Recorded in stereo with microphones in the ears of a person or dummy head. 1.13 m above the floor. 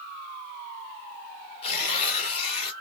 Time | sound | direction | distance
1.6 | tearing paper | 30° left (ahead or behind) | 1.6 m